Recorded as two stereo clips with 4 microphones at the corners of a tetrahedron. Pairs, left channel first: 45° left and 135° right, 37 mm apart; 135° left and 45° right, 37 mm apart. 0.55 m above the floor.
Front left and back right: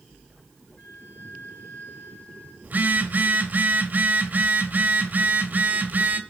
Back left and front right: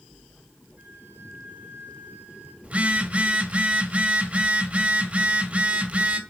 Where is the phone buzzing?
95° right, 1.6 m.